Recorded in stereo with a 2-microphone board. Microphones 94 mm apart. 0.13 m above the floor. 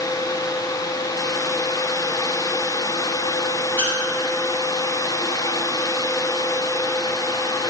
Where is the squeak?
55° right (ahead or behind), 2.5 m.